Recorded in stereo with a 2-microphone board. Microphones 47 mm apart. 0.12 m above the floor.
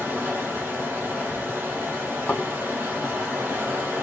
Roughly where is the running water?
Right.